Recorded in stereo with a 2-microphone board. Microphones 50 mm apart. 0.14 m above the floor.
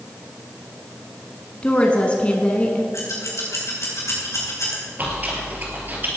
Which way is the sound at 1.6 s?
25° left (ahead or behind).